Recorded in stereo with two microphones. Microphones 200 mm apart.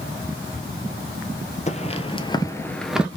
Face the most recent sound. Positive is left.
turn(degrees=-5)  # may be behind; listen again after turning